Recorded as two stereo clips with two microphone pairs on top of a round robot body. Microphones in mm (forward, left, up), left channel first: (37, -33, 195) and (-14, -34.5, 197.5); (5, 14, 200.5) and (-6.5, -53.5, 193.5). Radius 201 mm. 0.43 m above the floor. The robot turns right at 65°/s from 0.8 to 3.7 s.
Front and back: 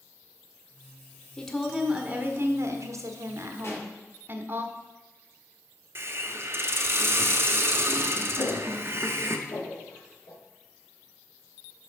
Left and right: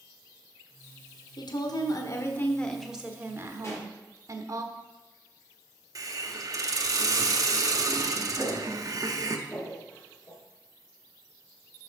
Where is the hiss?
135° right, 0.9 m.